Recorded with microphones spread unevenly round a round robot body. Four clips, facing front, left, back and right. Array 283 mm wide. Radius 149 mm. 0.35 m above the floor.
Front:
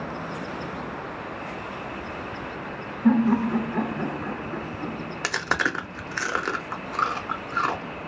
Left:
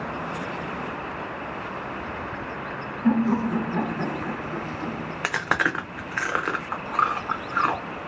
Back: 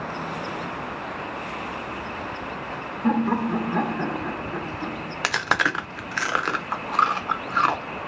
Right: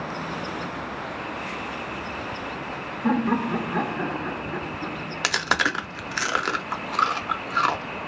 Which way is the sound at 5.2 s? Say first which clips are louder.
Even, back 3 dB; 25° left.